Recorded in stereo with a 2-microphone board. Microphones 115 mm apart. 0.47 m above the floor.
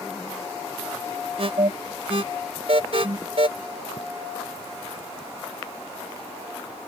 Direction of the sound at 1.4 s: 55° right (ahead or behind).